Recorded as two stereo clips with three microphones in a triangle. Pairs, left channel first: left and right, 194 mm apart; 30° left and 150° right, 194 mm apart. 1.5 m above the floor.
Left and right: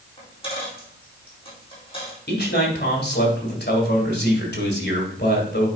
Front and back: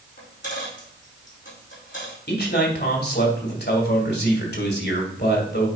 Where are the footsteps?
I don't hear footsteps.